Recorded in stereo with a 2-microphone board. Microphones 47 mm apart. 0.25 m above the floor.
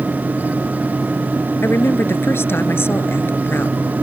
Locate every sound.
1.6 s a woman speaking: 60° left (ahead or behind)